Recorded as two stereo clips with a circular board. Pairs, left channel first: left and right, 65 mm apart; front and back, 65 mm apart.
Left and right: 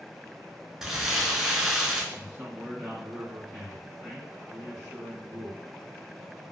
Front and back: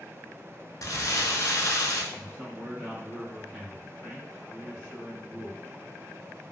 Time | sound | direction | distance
0.8 | crumpling | 10° right | 0.5 m
2.1 | a man speaking | 55° right | 1.9 m